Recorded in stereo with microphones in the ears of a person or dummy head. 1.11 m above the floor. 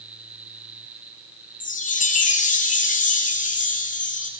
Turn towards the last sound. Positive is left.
turn(degrees=35)  # may be behind; listen again after turning